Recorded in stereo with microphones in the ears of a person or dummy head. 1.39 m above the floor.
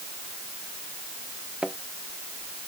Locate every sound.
1.6 s a thud: 5° right (ahead or behind)